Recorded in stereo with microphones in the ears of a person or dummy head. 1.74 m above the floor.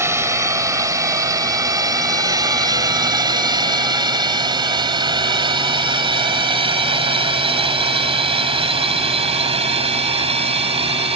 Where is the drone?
10° right (ahead or behind); by 11.2 s 30° right (ahead or behind).